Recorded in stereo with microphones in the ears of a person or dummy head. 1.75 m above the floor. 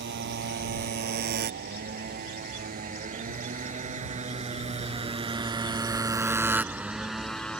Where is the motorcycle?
55° right (ahead or behind); by 7.6 s 5° left (ahead or behind).